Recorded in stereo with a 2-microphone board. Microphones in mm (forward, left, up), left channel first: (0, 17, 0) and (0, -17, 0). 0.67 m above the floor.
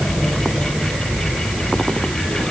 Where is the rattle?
No rattle in this recording.